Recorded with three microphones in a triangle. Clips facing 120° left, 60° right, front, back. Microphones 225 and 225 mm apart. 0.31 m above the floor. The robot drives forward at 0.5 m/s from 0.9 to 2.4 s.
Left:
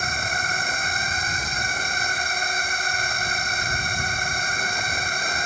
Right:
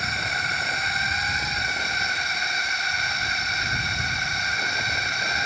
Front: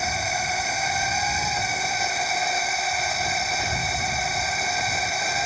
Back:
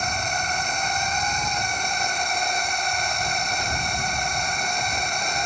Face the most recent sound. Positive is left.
turn(degrees=85)